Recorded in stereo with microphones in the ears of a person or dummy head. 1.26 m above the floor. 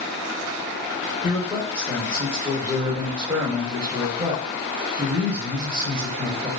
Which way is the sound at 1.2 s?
10° right (ahead or behind).